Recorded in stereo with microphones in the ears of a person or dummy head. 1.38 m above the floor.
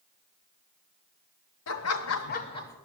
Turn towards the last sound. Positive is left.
turn(degrees=15)  # may be behind; listen again after turning